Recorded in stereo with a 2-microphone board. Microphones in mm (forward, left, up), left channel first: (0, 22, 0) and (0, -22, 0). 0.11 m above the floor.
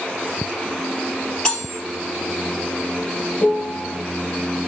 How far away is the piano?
About 1.6 m.